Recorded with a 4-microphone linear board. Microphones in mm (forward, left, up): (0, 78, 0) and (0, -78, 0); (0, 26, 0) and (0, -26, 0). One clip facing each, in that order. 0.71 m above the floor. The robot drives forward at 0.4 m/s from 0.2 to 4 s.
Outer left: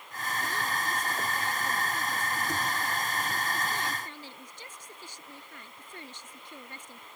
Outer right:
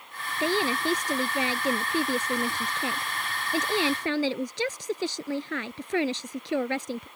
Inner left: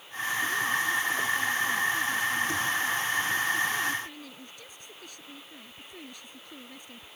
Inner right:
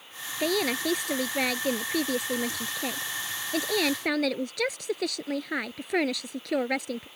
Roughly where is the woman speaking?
Right.